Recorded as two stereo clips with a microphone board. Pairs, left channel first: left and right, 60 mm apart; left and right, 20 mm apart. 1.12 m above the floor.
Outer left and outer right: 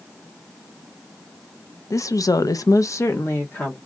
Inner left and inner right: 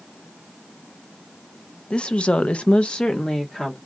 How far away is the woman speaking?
About 0.6 m.